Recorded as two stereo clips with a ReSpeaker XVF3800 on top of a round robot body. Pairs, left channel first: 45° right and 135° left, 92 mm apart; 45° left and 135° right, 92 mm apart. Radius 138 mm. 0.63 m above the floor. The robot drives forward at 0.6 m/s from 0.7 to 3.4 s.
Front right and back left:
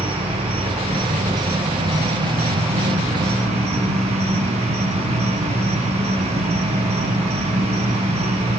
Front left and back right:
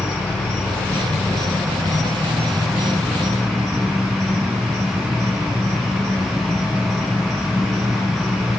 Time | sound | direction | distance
0.0 | an insect | 115° left | 3.5 m